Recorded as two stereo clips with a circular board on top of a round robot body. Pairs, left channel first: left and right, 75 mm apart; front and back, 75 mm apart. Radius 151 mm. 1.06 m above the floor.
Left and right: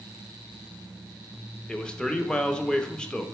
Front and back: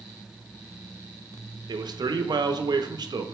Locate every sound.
1.7 s a man speaking: 165° left, 0.5 m